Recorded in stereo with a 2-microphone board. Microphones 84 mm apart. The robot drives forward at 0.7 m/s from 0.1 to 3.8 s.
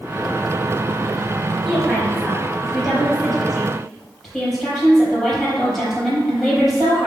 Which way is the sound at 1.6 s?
5° left (ahead or behind).